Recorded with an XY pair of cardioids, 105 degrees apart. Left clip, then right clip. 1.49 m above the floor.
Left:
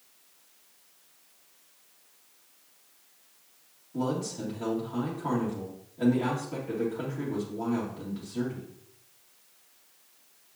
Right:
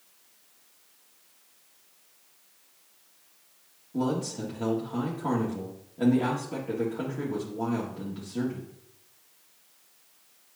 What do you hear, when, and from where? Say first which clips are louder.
3.9 s a man speaking: right 2 dB; 25° right, 2 m